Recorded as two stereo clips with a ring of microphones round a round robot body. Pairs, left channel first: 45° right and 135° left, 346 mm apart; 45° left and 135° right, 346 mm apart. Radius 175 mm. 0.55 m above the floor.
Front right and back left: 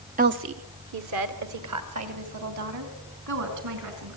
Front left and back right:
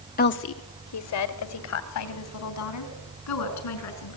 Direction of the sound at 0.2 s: 85° left.